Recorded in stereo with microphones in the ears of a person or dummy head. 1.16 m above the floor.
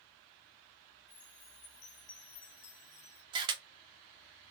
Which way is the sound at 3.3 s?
25° right (ahead or behind).